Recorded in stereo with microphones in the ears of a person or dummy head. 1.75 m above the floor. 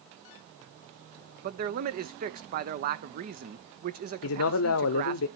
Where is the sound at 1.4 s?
45° right (ahead or behind), 0.9 m.